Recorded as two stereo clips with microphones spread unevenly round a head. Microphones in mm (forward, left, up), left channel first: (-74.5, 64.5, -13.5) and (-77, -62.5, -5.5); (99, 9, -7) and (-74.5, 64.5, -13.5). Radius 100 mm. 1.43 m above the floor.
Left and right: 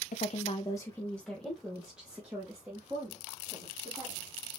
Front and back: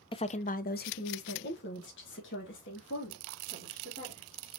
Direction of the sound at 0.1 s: 45° left.